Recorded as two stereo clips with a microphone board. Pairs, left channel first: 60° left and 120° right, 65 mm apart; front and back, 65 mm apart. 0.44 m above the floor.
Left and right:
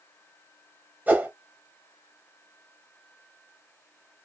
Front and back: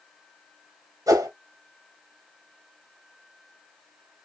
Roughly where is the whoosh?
Behind.